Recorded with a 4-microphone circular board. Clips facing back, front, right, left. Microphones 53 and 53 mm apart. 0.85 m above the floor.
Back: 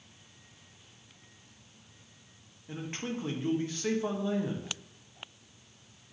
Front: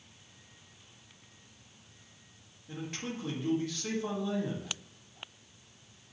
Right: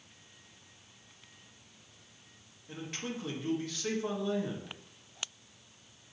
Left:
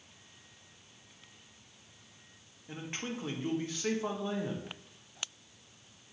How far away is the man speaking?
About 0.6 m.